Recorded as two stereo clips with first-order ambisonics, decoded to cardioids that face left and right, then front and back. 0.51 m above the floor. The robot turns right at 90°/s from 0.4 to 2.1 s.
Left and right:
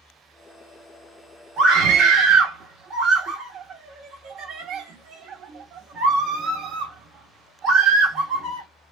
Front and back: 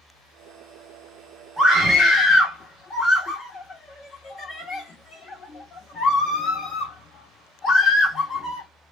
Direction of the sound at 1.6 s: 100° right.